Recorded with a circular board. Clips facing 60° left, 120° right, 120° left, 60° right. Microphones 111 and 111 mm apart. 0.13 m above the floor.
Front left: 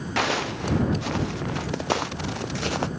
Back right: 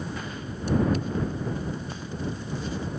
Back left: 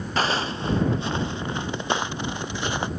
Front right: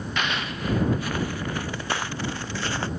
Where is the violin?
No violin in this recording.